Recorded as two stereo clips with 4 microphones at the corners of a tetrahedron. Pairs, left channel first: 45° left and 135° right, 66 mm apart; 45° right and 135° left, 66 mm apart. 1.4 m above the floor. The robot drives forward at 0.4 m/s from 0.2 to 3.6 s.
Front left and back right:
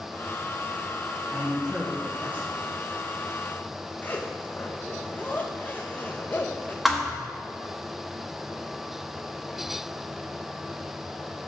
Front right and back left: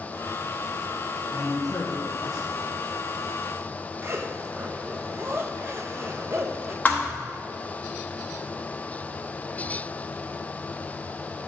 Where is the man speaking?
55° right, 1.4 m; by 2.5 s 75° right, 1.2 m.